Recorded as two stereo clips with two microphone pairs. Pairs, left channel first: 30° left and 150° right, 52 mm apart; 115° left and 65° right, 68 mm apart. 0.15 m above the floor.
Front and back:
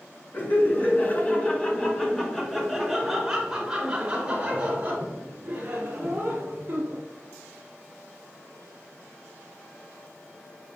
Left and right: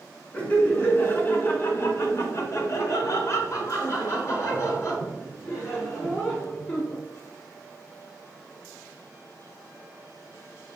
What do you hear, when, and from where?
0.3 s laughter: 55° left, 1.7 m; by 7.0 s 160° left, 3 m